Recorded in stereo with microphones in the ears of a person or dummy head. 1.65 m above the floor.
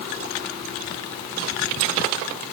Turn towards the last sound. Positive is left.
No sound to turn to.